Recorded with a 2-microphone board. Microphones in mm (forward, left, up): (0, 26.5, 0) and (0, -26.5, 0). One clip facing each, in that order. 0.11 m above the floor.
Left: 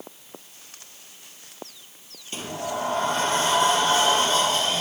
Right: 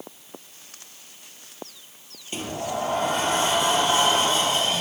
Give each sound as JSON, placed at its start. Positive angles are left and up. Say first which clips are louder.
{"t": 2.3, "sound": "a sliding door", "louder": "right 1 dB", "side_deg": -20, "distance_m": 1.5}